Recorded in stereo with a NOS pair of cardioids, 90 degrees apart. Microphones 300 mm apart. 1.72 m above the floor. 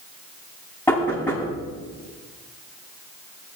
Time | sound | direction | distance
0.9 | knocking | 5° left | 9.5 m